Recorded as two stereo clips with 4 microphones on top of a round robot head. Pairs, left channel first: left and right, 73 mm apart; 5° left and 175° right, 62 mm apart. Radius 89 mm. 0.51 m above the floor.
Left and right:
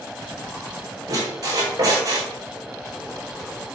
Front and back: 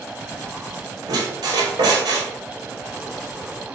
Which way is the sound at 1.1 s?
145° right.